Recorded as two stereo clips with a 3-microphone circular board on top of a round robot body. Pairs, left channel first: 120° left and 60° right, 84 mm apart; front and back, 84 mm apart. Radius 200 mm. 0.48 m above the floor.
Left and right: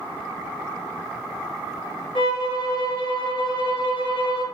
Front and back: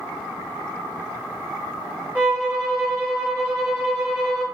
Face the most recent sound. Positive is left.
turn(degrees=110)